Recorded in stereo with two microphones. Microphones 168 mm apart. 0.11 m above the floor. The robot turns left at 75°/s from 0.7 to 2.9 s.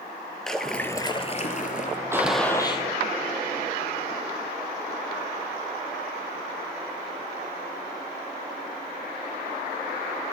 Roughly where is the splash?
Behind.